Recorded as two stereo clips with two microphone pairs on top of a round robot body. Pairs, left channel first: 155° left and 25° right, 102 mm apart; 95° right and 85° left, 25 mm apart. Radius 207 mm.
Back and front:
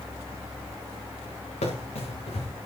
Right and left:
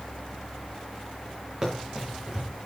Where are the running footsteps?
155° left, 5.5 m.